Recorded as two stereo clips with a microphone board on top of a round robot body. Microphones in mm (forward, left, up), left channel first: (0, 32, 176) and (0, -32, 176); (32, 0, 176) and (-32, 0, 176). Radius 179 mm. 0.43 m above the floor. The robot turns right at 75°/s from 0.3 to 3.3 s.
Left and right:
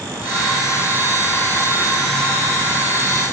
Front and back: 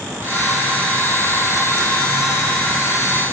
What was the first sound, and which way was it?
Only background noise.